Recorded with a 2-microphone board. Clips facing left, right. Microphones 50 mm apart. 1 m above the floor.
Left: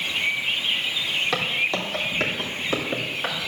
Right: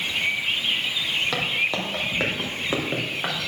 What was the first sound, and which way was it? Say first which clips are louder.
Footsteps: even; centre (ahead or behind).